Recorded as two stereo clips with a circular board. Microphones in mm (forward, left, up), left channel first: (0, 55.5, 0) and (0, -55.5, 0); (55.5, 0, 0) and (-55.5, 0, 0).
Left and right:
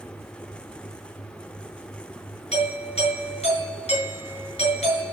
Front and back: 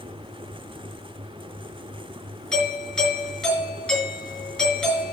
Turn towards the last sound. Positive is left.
turn(degrees=85)